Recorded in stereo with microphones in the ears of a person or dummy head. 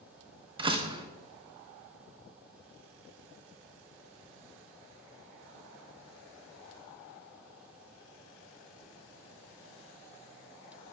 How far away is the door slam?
About 0.8 m.